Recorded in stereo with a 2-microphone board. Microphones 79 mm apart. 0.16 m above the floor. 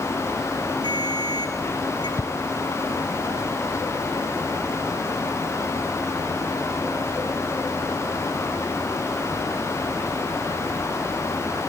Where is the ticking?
35° right (ahead or behind), 0.7 m.